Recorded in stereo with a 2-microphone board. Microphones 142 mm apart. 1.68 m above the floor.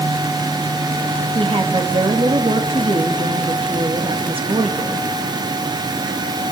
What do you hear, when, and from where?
1.4 s a woman speaking: 40° right (ahead or behind), 3 m